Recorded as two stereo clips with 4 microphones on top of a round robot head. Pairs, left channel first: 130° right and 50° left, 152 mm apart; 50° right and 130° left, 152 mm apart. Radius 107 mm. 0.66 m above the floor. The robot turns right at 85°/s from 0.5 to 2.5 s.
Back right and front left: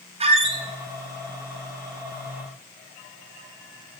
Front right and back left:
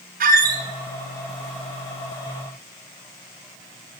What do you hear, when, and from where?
0.2 s a squeak: 100° left, 0.8 m; by 0.6 s 110° left, 0.8 m